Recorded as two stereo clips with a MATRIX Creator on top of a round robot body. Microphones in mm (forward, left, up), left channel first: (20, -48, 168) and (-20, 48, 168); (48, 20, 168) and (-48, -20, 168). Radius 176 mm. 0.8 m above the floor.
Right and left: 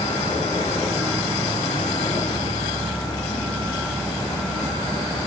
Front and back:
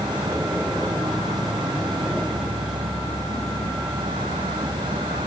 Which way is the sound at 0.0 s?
150° right.